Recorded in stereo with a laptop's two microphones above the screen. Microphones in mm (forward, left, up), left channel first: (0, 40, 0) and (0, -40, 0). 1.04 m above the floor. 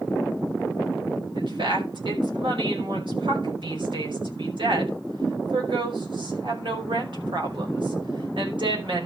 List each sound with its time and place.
1.3 s a woman speaking: 80° right, 5 m